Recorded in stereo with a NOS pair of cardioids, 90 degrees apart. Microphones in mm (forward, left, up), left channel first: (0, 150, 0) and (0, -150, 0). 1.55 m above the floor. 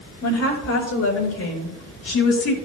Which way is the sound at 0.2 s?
55° left.